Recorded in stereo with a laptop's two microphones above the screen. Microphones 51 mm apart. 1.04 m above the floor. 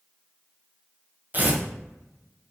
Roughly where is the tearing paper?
Right.